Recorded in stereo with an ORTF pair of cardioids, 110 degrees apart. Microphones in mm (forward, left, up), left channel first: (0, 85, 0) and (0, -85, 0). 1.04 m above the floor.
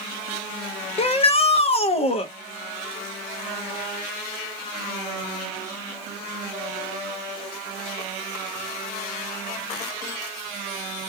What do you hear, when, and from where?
1.0 s a shout: 35° left, 0.7 m